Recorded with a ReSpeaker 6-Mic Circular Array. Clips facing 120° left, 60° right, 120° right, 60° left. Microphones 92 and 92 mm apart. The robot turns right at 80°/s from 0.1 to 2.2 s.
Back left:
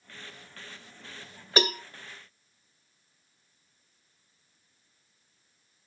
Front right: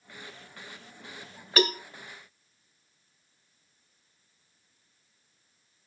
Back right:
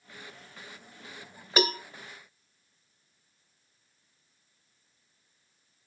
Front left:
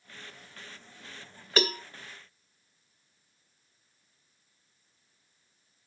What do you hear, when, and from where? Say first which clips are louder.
1.6 s a cowbell: front right 1 dB, back right 1 dB; 170° left, 1.5 m; by 1.8 s 170° right, 1.5 m